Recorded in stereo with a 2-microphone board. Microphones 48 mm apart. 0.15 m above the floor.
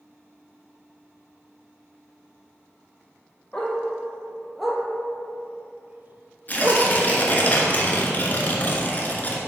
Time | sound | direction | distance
3.5 | a dog barking | 15° left (ahead or behind) | 1.5 m
6.5 | tearing paper | 35° left (ahead or behind) | 1.3 m